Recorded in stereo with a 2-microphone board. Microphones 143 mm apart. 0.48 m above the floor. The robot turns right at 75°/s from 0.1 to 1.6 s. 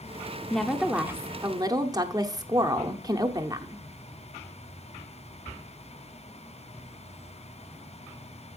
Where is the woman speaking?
5° left (ahead or behind), 0.7 m; by 3.8 s 25° right (ahead or behind), 0.7 m.